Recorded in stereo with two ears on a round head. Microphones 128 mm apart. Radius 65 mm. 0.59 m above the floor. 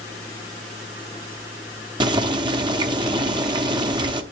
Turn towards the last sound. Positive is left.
turn(degrees=-30)  # may be behind; listen again after turning